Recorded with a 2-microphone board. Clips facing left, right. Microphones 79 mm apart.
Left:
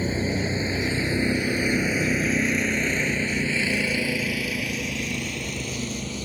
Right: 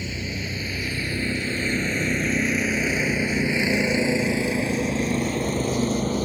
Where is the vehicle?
35° left (ahead or behind); by 6.3 s 45° right (ahead or behind).